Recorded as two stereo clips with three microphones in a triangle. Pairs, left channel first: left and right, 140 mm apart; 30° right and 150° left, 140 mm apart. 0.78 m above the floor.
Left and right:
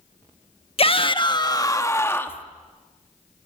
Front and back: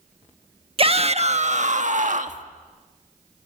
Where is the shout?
120° left, 1.0 m; by 2.4 s 165° left, 1.4 m.